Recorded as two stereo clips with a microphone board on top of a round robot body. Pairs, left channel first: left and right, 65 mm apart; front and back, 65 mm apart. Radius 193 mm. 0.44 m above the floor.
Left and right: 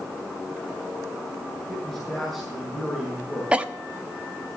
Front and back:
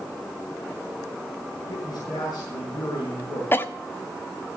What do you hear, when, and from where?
1.7 s a man speaking: 10° left, 5.5 m
3.5 s a cough: 30° right, 1.4 m